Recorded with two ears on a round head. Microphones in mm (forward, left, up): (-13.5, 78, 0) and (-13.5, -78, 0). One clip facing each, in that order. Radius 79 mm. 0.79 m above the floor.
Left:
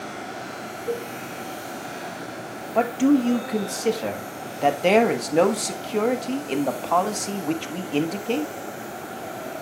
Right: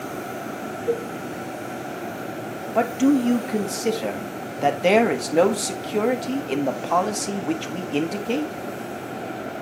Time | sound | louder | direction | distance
0.9 | a cowbell | right 4 dB | 20° right (ahead or behind) | 3.5 m
2.8 | a man speaking | even | 5° right (ahead or behind) | 1.2 m